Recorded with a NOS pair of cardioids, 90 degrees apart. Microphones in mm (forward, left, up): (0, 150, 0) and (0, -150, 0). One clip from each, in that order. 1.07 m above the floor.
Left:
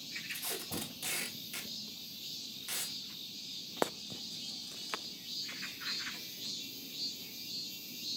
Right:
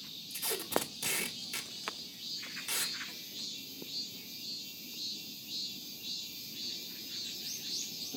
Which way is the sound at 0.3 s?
20° right.